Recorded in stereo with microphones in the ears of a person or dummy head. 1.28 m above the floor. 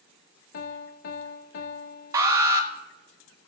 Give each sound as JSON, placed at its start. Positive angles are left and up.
{"t": 0.5, "sound": "a piano", "side_deg": 50, "distance_m": 0.7}
{"t": 2.1, "sound": "an alarm", "side_deg": -20, "distance_m": 1.2}